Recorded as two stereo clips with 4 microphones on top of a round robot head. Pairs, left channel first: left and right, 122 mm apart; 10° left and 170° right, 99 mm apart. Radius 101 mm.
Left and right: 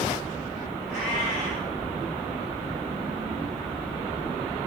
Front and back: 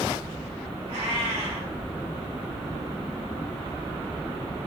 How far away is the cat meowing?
About 1.9 m.